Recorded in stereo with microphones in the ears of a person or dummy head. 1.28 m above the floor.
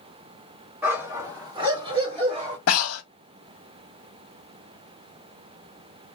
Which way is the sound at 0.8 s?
15° right (ahead or behind).